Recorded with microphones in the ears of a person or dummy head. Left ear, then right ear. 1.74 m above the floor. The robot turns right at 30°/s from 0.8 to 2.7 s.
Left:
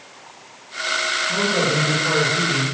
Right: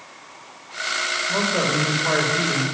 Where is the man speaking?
130° right, 6 m; by 2.6 s 90° right, 6 m.